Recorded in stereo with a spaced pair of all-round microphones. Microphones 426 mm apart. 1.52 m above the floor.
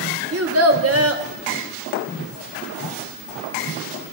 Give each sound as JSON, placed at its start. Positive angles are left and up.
{"t": 0.3, "sound": "a child speaking", "side_deg": -35, "distance_m": 1.1}